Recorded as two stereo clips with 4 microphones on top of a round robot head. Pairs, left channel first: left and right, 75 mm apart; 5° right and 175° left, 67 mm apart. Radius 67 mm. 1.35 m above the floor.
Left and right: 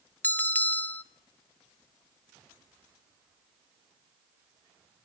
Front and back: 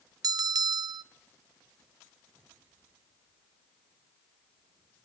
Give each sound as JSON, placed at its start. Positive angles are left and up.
{"t": 0.2, "sound": "a bell", "azimuth_deg": 160, "distance_m": 0.8}